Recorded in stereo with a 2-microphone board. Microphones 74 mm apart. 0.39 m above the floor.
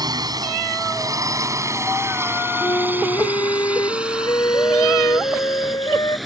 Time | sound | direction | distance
0.0 | a drone | 65° right (ahead or behind) | ?
2.6 | a flute | 60° left (ahead or behind) | ?